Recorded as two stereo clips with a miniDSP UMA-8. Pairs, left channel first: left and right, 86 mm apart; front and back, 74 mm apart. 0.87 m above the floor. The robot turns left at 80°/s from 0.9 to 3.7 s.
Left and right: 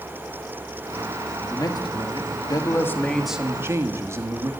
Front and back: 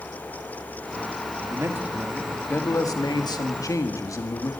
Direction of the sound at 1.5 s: 140° left.